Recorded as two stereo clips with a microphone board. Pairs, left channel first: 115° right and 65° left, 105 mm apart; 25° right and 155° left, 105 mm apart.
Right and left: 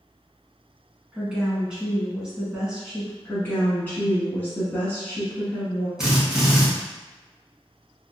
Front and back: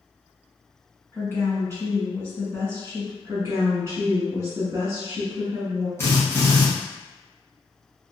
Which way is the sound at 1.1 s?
Straight ahead.